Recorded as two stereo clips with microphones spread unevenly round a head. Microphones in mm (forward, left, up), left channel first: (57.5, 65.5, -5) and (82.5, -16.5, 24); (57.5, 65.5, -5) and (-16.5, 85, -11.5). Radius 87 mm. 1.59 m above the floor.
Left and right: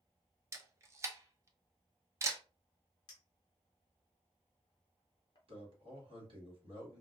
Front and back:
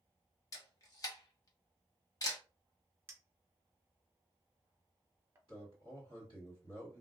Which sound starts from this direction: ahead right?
A camera shutter, at 0.5 s.